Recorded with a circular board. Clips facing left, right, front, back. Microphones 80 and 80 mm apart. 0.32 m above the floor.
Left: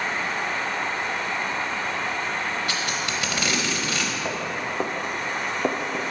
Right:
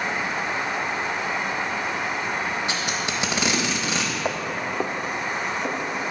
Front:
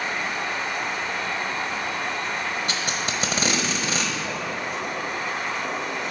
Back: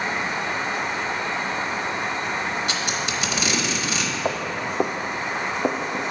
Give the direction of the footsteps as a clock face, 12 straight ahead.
5 o'clock.